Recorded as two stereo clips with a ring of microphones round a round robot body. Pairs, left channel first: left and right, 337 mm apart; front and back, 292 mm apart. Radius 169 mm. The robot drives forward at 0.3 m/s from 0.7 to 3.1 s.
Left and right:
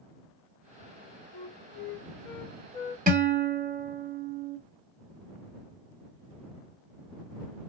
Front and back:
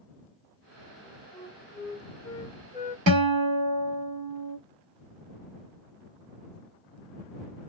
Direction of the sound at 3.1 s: 155° right.